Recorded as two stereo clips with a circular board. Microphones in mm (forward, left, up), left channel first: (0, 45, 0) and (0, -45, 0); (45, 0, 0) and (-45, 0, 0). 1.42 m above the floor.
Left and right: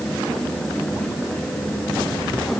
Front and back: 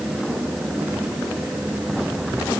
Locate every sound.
Only background noise.